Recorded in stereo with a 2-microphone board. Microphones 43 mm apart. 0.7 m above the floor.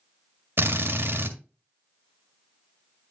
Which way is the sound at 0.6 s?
70° right (ahead or behind).